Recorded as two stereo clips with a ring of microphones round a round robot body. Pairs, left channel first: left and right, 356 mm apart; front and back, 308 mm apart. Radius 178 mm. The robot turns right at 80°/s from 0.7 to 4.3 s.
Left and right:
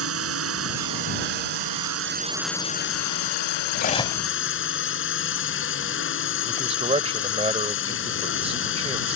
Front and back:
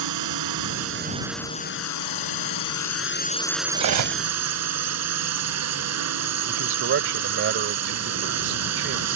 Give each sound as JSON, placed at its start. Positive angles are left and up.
{"t": 0.0, "sound": "a drone", "azimuth_deg": -140}
{"t": 3.8, "sound": "cutlery clinking", "azimuth_deg": 145}
{"t": 6.5, "sound": "a man speaking", "azimuth_deg": -155}